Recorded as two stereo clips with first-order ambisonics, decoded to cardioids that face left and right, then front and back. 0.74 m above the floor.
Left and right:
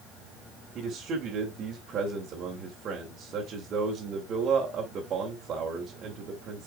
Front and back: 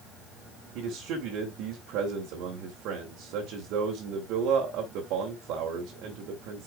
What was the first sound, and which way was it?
A man speaking, 150° right.